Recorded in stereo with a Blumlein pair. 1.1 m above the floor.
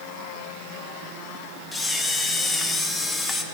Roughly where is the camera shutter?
Ahead.